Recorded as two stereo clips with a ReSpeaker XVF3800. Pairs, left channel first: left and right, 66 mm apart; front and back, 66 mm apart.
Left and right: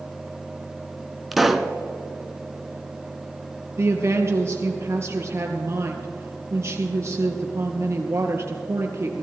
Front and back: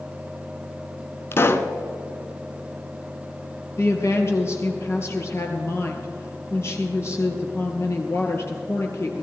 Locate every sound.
1.3 s a pop: straight ahead, 0.7 m
3.8 s a woman speaking: 45° right, 2.5 m